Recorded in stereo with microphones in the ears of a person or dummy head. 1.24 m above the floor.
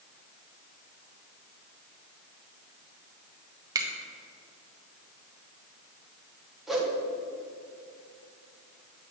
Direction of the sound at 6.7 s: 5° right (ahead or behind).